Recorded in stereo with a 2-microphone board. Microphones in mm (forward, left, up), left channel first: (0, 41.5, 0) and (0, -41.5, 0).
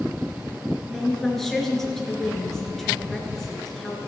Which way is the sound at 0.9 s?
5° left (ahead or behind).